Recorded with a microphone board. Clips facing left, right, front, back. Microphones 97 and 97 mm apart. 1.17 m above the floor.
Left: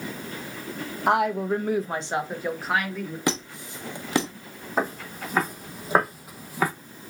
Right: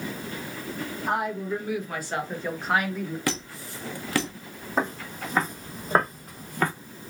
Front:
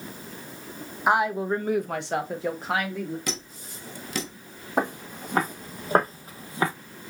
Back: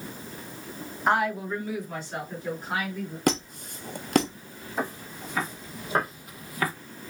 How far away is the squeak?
About 0.8 m.